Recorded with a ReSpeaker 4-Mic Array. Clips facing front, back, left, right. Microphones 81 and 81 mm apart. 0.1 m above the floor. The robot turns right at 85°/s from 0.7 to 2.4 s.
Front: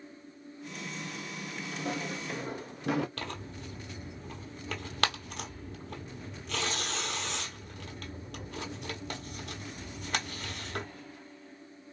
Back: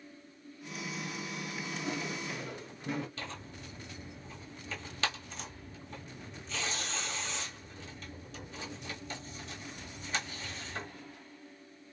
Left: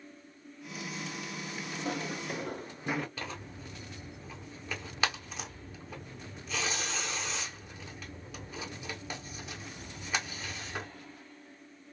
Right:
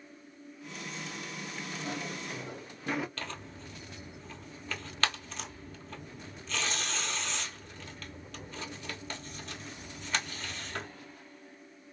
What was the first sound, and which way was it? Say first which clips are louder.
Footsteps: front 3 dB, left 3 dB; 20° left.